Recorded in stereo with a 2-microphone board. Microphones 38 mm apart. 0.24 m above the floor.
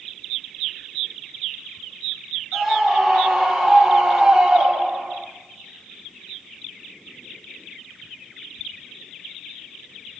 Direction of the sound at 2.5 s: 5° right (ahead or behind).